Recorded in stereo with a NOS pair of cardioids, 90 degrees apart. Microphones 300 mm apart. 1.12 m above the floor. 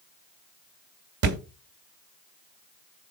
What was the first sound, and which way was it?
A thud, 55° right.